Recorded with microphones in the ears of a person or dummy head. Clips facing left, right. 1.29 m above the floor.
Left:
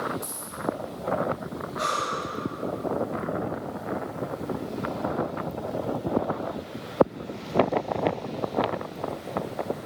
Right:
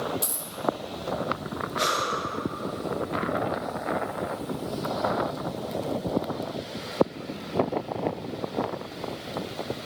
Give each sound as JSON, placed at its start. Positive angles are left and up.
{"t": 0.2, "sound": "a dropped coin", "side_deg": -50, "distance_m": 1.4}
{"t": 1.8, "sound": "breathing", "side_deg": -45, "distance_m": 2.5}